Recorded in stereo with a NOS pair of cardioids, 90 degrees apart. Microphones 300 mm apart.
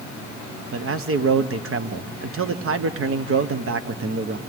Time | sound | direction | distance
0.7 | a man speaking | 45° right | 1.3 m